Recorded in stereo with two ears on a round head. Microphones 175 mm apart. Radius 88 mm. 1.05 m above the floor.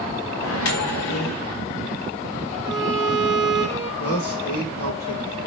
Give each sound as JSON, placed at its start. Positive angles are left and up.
{"t": 0.4, "sound": "a microwave", "side_deg": 80, "distance_m": 0.7}
{"t": 2.6, "sound": "a violin", "side_deg": -15, "distance_m": 0.7}
{"t": 4.0, "sound": "a man speaking", "side_deg": 85, "distance_m": 3.0}